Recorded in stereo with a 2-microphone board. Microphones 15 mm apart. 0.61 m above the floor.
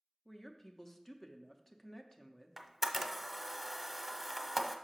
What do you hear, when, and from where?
0.2 s a woman speaking: 20° left (ahead or behind), 0.6 m
2.6 s a camera shutter: 10° right (ahead or behind), 0.6 m